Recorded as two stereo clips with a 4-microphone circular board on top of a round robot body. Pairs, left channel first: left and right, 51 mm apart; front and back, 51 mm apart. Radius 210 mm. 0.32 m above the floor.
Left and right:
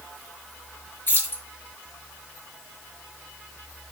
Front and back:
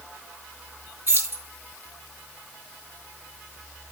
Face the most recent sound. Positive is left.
turn(degrees=140)